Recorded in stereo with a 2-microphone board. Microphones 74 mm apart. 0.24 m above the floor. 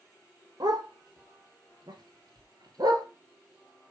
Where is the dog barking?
70° right (ahead or behind), 1.7 m; by 3.1 s 60° right (ahead or behind), 1.4 m.